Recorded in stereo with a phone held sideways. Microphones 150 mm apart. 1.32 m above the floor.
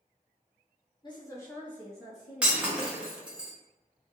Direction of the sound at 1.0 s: 35° left (ahead or behind).